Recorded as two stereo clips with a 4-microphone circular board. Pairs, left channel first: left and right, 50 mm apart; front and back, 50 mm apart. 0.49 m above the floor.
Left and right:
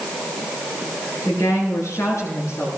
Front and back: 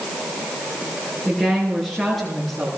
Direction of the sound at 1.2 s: 80° left.